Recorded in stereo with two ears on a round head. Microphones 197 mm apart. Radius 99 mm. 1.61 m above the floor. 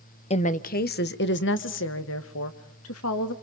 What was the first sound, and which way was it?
A woman speaking, 30° left (ahead or behind).